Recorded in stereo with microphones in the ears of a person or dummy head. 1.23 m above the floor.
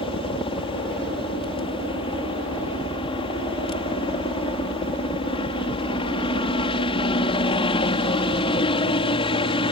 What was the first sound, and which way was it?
A helicopter, 25° left (ahead or behind).